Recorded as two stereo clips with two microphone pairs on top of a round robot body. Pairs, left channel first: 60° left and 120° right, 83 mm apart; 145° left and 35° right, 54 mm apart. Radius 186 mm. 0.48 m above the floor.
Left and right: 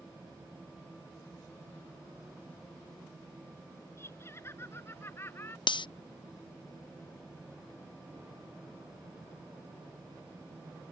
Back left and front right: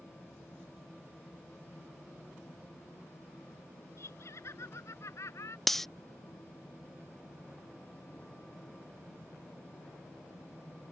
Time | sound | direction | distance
4.0 | laughter | 120° left | ?
5.7 | cutlery clinking | 65° left | ?